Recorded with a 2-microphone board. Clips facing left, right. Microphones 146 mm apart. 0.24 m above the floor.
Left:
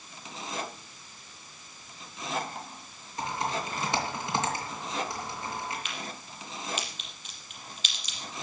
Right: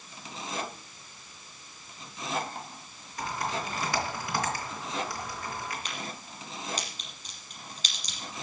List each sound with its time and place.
3.2 s typing on a keyboard: 25° left (ahead or behind), 3.5 m
5.8 s a crack: 40° right (ahead or behind), 5 m